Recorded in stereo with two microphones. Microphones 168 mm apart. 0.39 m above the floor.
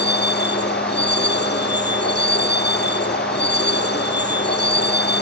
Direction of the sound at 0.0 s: 85° left.